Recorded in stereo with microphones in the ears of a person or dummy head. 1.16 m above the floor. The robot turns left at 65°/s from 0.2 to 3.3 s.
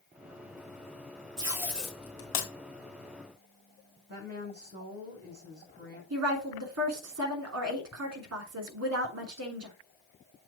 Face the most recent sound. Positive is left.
turn(degrees=-85)